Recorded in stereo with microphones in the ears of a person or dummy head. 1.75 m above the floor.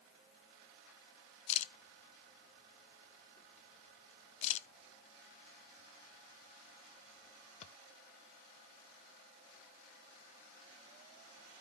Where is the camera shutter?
45° left (ahead or behind), 0.7 m.